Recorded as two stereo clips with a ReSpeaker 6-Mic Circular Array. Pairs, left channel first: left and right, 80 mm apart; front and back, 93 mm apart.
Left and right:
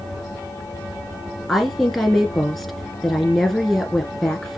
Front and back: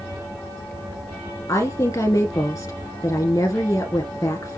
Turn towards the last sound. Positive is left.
turn(degrees=5)